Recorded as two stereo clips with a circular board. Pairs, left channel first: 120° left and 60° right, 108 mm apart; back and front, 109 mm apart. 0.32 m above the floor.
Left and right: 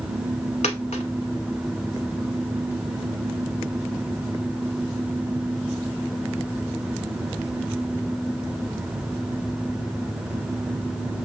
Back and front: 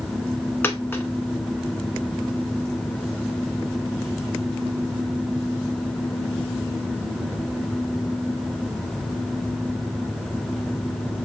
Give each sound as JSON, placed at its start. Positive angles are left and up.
{"t": 0.6, "sound": "a dropped coin", "azimuth_deg": 110, "distance_m": 0.7}